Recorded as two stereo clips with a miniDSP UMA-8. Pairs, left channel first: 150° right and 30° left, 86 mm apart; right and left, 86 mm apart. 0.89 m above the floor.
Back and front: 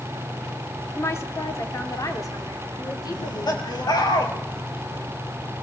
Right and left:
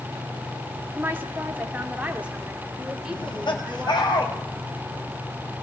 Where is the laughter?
115° right, 5 m.